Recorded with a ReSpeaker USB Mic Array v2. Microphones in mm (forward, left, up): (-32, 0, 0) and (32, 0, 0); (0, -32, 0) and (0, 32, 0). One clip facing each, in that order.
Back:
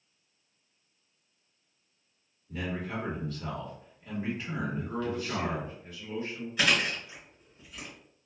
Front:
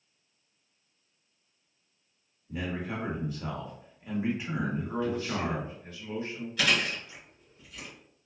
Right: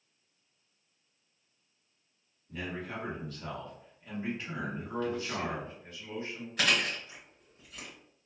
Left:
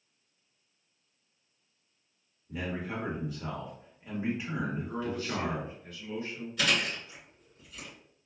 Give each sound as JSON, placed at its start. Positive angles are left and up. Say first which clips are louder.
{"t": 2.5, "sound": "a man speaking", "louder": "front 1 dB, left 3 dB", "azimuth_deg": 45, "distance_m": 1.0}
{"t": 4.8, "sound": "a man speaking", "louder": "front 2 dB, even", "azimuth_deg": -40, "distance_m": 1.6}
{"t": 6.6, "sound": "chewing", "louder": "back 1 dB, even", "azimuth_deg": -110, "distance_m": 1.6}